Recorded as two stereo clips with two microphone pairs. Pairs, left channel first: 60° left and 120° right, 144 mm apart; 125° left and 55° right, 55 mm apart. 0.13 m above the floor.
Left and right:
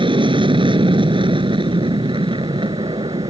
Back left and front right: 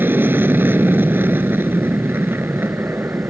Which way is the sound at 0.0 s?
85° right.